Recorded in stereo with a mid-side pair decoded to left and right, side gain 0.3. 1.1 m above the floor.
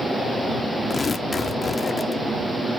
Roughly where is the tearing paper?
Ahead left.